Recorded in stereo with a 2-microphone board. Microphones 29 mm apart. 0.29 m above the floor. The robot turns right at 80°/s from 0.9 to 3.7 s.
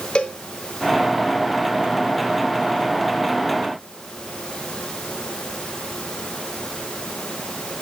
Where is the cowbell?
30° left (ahead or behind), 1.4 m.